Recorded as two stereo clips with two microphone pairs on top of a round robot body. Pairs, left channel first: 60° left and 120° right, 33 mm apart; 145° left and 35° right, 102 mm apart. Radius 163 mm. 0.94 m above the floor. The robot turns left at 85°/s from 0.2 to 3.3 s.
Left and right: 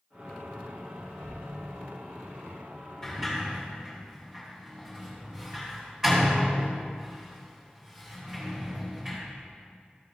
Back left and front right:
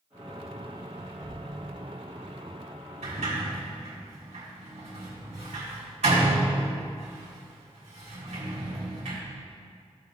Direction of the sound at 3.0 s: 25° right.